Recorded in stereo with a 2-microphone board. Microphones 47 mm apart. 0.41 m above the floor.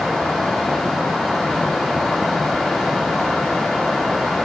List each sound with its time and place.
Only background noise.